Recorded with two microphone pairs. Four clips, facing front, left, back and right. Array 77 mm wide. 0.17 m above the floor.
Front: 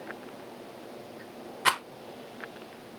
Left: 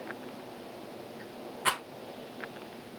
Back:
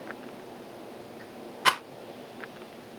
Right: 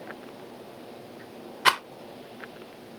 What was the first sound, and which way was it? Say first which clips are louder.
A rattle: right 8 dB, back 2 dB; 100° right.